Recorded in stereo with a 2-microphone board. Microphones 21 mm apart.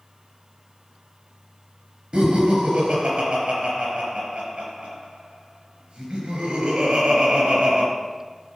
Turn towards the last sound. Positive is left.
turn(degrees=-65)  # may be behind; listen again after turning